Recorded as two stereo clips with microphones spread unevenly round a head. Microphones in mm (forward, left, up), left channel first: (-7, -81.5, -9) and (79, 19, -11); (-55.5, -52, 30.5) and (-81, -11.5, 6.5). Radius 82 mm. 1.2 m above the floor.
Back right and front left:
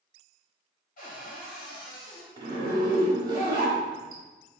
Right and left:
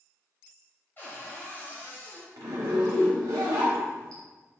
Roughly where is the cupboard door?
Behind right.